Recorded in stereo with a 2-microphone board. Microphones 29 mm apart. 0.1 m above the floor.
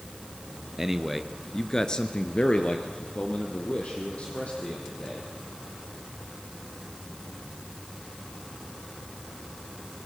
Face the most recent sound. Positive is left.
turn(degrees=45)  # may be behind; listen again after turning